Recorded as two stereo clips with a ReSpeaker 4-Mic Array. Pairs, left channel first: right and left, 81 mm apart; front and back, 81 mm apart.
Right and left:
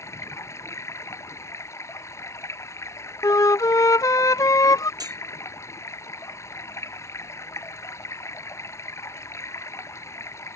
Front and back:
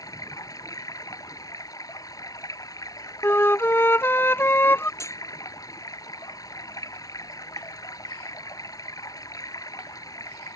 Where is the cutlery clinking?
55° left.